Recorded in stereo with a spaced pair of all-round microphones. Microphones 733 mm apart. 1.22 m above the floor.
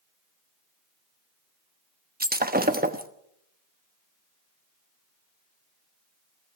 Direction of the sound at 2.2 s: 10° right (ahead or behind).